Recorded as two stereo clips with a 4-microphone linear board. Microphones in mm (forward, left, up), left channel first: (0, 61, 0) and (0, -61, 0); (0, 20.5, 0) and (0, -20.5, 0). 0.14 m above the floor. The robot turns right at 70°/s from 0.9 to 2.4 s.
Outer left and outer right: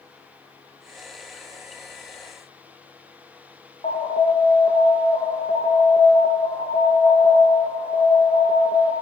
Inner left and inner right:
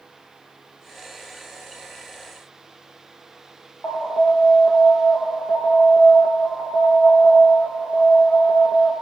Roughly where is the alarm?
Left.